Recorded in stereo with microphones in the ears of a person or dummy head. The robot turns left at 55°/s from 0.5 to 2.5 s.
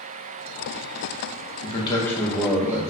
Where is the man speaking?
40° left, 0.6 m; by 2.8 s 10° right, 0.6 m.